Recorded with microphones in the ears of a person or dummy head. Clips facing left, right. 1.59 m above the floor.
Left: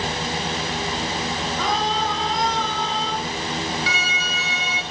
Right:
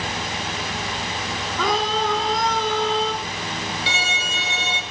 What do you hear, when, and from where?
1.6 s a scream: 80° right, 5 m
3.9 s a violin: 25° right (ahead or behind), 3.5 m